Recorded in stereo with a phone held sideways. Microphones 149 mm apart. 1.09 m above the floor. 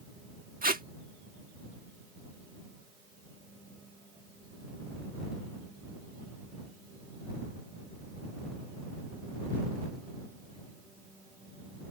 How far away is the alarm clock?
No alarm clock in this recording.